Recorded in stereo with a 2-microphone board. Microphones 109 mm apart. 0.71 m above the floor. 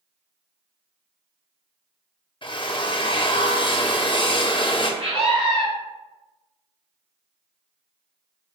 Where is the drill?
50° left (ahead or behind), 0.6 m.